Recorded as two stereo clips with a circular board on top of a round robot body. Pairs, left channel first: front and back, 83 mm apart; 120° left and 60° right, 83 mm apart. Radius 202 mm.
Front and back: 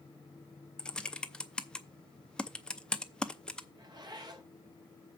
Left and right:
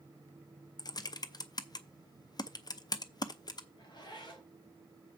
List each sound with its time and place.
0.8 s typing on a keyboard: 80° left, 0.7 m
3.8 s a zipper: 145° left, 2.5 m